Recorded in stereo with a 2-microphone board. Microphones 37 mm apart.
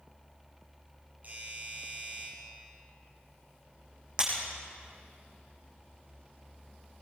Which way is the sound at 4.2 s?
30° right (ahead or behind).